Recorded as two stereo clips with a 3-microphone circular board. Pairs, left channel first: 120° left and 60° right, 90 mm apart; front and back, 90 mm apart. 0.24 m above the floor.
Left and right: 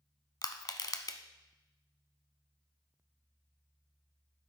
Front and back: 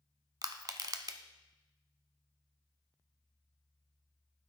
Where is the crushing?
150° left, 0.7 m.